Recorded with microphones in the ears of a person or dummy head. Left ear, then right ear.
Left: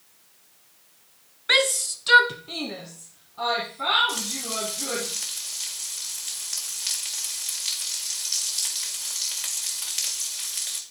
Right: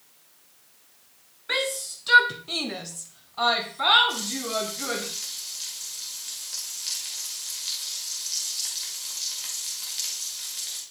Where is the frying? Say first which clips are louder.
Right 1 dB; 25° left (ahead or behind), 1.6 m.